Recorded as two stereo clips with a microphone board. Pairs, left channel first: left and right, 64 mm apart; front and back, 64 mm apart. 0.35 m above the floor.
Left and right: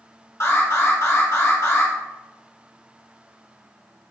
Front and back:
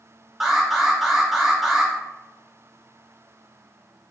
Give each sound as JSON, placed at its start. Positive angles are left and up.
{"t": 0.4, "sound": "an alarm", "azimuth_deg": 95, "distance_m": 1.5}